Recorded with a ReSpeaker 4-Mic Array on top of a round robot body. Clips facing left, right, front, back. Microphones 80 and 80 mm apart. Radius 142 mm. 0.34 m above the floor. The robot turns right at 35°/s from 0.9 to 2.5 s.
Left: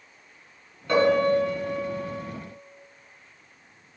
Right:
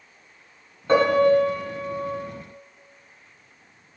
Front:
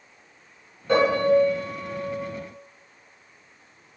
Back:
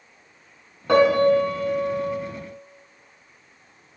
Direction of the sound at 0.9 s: 155° right.